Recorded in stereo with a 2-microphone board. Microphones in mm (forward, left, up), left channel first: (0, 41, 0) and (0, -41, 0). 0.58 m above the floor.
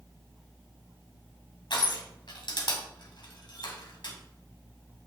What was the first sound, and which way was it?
Crushing, 65° left (ahead or behind).